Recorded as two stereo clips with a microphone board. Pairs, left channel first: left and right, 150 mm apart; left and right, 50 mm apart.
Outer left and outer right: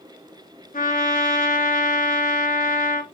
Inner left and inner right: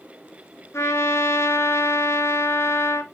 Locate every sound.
0.7 s a trumpet: 75° left (ahead or behind), 0.9 m